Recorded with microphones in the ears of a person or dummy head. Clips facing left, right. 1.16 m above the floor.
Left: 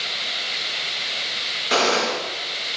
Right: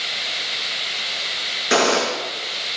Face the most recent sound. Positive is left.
turn(degrees=-35)  # may be behind; listen again after turning